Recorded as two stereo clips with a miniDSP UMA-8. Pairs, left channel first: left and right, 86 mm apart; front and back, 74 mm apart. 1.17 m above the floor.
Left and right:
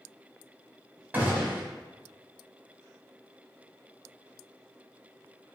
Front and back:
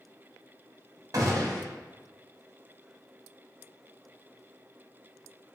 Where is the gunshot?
155° right, 0.7 m.